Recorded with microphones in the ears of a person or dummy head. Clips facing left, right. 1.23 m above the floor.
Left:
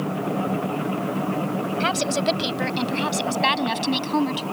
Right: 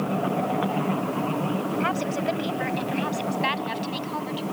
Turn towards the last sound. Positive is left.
turn(degrees=60)  # may be behind; listen again after turning